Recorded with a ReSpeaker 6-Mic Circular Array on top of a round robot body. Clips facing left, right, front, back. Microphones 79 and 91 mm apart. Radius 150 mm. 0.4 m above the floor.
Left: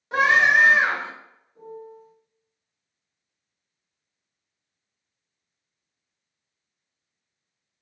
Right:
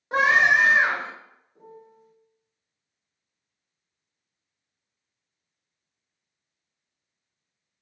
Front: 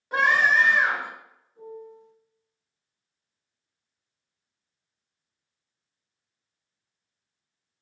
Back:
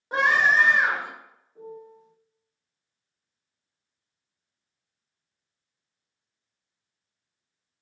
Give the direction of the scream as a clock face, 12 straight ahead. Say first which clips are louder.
Left 1 dB, even; 4 o'clock.